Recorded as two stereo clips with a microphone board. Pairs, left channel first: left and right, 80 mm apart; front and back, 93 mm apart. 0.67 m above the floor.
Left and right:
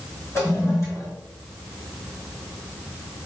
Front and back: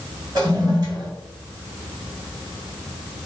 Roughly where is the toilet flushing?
Behind left.